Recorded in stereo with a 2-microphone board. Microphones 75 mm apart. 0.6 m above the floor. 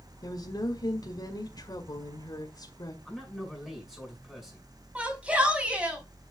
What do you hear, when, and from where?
0.2 s a woman speaking: 60° left (ahead or behind), 2.0 m
3.0 s a man speaking: 5° right (ahead or behind), 5.5 m
5.0 s a shout: 15° right (ahead or behind), 4.5 m